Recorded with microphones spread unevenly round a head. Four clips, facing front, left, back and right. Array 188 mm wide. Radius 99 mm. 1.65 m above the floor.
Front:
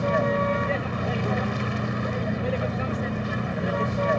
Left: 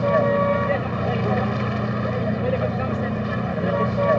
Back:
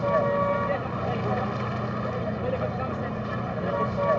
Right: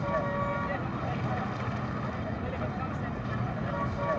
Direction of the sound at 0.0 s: 90° left.